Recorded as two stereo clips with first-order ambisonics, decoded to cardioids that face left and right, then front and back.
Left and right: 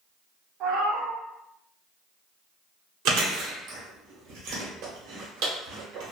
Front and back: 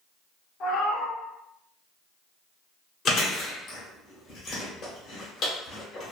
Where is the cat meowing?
50° right, 1.0 m.